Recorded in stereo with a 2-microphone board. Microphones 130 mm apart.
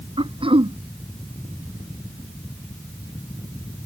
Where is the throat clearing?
40° right (ahead or behind).